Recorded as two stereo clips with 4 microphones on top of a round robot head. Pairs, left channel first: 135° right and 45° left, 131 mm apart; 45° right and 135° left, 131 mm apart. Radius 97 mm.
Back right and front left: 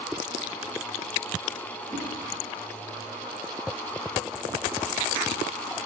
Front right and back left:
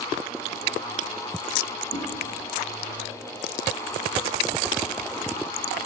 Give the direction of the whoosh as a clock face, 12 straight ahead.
1 o'clock.